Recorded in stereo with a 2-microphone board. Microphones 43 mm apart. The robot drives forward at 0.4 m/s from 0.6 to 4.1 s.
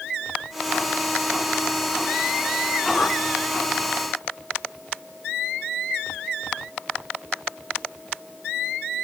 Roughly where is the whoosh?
Left.